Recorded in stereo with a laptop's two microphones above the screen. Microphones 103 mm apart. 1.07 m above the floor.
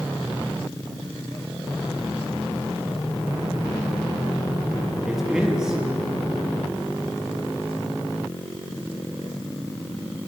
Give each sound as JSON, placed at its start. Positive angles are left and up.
{"t": 5.1, "sound": "a man speaking", "side_deg": -5, "distance_m": 1.8}